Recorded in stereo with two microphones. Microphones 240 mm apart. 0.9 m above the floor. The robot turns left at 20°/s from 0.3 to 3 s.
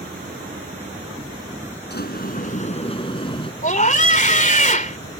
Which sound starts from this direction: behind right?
An insect, at 0.0 s.